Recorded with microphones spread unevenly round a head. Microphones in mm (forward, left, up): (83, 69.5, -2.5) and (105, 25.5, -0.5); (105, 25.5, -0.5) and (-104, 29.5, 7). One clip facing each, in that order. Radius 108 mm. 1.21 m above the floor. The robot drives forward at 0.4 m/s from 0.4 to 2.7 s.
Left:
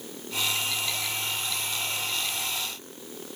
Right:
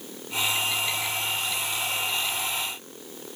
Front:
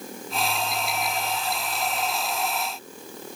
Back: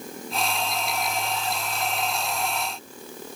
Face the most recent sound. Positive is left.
No sound to turn to.